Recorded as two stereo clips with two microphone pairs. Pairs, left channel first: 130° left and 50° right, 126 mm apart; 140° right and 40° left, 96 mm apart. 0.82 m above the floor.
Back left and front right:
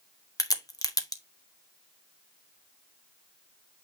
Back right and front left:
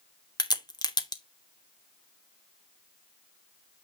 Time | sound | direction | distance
0.4 | a crack | 175° right | 1.2 m